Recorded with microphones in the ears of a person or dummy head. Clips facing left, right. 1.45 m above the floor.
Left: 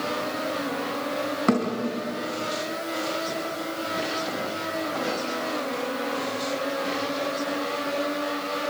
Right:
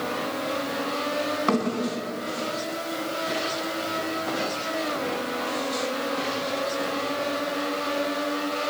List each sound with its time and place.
1.5 s a thud: 25° left (ahead or behind), 4.5 m